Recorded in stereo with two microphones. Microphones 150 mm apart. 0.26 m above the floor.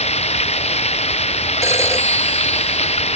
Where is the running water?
45° left (ahead or behind).